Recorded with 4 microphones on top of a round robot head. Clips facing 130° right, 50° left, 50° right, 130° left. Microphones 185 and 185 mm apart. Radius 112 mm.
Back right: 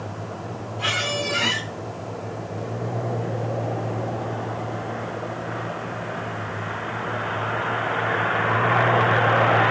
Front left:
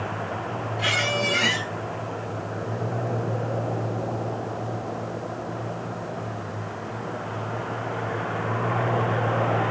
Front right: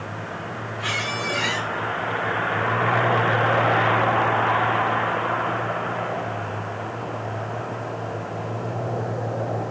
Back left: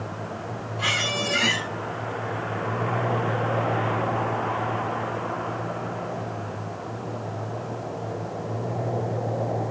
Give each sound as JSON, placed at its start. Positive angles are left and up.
{"t": 0.8, "sound": "a squeak", "azimuth_deg": 120, "distance_m": 3.0}